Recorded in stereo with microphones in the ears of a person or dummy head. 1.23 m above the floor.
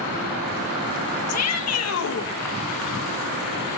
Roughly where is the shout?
Left.